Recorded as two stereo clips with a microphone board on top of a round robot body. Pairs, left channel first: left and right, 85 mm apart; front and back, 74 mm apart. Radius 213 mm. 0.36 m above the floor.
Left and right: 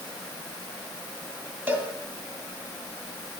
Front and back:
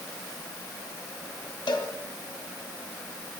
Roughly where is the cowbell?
Ahead.